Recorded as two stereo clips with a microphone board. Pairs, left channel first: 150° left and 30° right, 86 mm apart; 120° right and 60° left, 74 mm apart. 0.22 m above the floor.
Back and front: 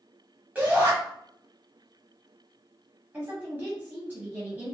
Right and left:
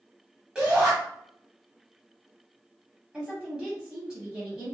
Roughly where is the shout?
Ahead.